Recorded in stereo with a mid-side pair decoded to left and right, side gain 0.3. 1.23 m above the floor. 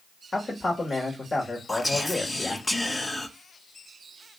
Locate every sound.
0.3 s a man speaking: 40° left, 1.7 m
1.7 s whispering: 25° left, 1.1 m